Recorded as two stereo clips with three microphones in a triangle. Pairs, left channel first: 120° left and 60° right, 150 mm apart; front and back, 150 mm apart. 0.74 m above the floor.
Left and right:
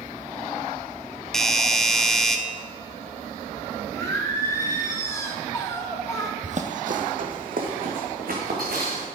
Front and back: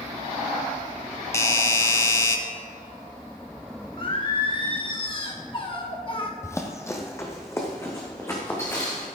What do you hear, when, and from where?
1.3 s a doorbell: 35° left, 0.8 m
4.0 s singing: 50° left, 1.3 m
6.4 s running footsteps: 65° right, 1.1 m; by 9.1 s 70° right, 3.5 m